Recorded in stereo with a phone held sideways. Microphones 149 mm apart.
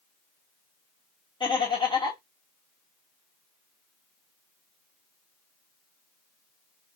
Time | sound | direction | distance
1.4 | laughter | 30° left (ahead or behind) | 1.4 m